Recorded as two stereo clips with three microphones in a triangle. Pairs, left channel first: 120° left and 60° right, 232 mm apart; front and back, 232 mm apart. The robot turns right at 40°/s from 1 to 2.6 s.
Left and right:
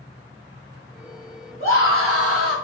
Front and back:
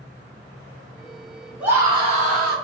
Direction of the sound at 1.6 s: 95° left.